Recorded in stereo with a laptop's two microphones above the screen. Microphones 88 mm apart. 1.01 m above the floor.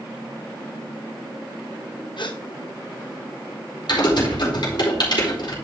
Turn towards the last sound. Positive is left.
turn(degrees=55)  # may be behind; listen again after turning